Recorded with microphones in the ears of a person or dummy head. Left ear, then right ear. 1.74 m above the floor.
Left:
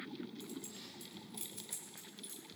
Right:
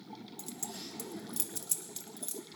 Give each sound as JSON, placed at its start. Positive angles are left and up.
{"t": 0.4, "sound": "keys jangling", "side_deg": -75, "distance_m": 2.5}